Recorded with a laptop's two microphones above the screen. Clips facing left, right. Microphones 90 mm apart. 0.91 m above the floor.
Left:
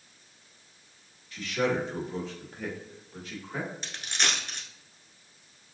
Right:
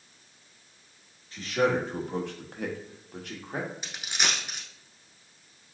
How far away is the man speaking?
About 1.3 m.